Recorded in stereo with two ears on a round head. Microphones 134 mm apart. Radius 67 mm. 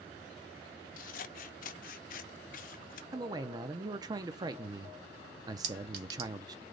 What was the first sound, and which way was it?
Scissors, 60° left (ahead or behind).